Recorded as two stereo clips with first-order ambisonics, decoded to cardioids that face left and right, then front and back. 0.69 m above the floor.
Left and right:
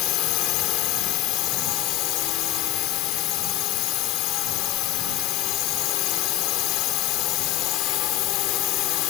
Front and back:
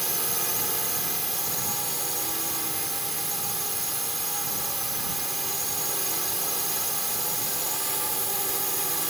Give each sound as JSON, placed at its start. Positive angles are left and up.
{"t": 0.0, "sound": "a drone", "azimuth_deg": 95}